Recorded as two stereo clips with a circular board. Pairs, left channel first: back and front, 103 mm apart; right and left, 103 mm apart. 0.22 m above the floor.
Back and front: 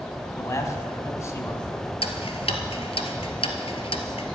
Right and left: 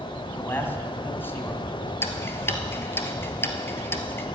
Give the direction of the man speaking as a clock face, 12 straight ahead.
5 o'clock.